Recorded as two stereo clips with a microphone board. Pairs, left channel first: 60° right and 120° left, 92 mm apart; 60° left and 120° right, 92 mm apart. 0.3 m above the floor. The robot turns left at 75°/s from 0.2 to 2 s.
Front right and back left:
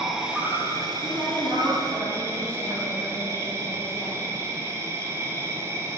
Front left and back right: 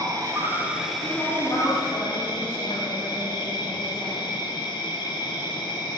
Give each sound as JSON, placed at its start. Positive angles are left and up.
{"t": 0.0, "sound": "an insect", "azimuth_deg": -155, "distance_m": 1.1}
{"t": 1.0, "sound": "a woman speaking", "azimuth_deg": 70, "distance_m": 2.0}